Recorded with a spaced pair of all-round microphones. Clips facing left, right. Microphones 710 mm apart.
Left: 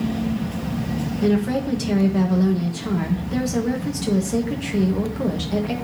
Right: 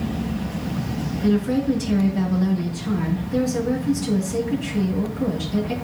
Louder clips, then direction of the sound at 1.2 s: Right 1 dB; 85° left.